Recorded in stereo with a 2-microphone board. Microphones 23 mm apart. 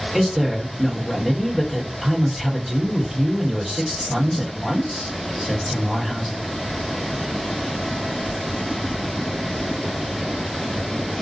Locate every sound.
0.1 s a woman speaking: 20° right (ahead or behind), 1.4 m